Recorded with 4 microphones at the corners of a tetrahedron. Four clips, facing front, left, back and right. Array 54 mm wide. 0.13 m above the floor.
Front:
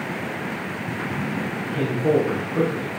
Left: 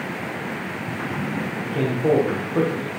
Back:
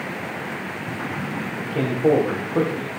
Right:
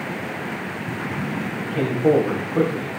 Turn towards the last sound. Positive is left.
turn(degrees=155)